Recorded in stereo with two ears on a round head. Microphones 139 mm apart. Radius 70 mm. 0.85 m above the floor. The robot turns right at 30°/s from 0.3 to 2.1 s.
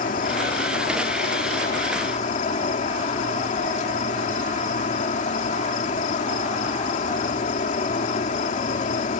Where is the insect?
65° left; by 9.2 s 120° left.